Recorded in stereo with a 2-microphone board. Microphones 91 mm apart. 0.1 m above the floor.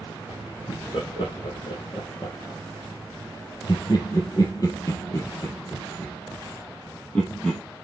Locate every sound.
0.7 s laughter: 70° left (ahead or behind), 4.5 m; by 7.6 s 10° left (ahead or behind), 5 m